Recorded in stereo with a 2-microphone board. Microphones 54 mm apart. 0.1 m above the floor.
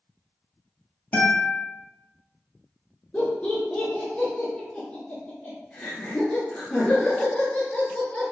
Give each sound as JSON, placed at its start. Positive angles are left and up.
{"t": 1.1, "sound": "a guitar", "side_deg": 40, "distance_m": 1.2}
{"t": 3.1, "sound": "laughter", "side_deg": 20, "distance_m": 1.1}